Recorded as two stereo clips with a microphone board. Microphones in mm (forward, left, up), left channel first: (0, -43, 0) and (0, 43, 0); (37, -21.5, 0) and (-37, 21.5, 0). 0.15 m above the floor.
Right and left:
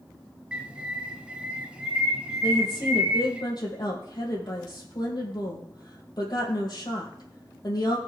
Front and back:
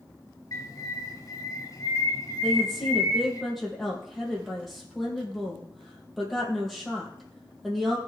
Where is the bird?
15° left, 1.8 m.